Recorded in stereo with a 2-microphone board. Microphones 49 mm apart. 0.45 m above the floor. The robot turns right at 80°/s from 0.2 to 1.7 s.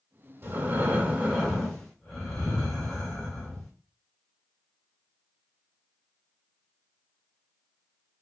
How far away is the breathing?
About 1.8 m.